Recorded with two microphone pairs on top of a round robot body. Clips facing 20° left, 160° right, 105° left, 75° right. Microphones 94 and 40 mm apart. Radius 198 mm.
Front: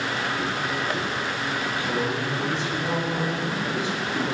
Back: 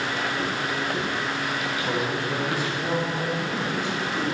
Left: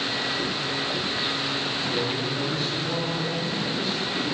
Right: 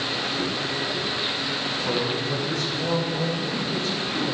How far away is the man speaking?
About 3.5 m.